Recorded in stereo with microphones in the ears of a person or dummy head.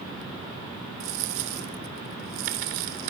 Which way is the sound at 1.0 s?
50° right (ahead or behind).